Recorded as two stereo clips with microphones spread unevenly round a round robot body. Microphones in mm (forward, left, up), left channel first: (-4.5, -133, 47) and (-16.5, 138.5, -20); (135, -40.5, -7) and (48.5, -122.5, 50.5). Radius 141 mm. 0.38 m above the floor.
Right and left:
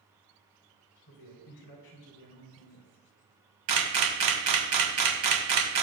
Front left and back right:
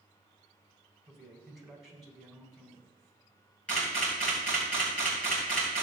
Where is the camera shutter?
110° left, 2 m.